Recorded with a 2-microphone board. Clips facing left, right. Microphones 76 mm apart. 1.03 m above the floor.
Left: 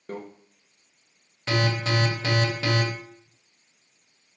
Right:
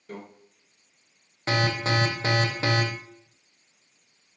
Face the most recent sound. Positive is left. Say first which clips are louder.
# even
turn(degrees=-30)  # may be behind; listen again after turning